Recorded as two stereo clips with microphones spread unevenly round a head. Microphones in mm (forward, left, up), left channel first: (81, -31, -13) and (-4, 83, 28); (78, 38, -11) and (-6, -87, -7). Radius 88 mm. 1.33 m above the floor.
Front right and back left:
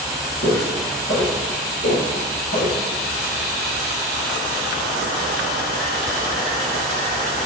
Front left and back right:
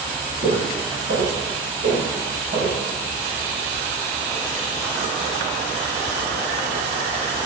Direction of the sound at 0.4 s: 80° right.